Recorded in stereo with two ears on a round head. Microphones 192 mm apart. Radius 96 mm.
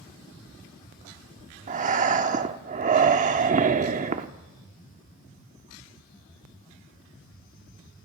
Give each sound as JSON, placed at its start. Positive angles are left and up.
{"t": 1.7, "sound": "breathing", "side_deg": -40, "distance_m": 1.0}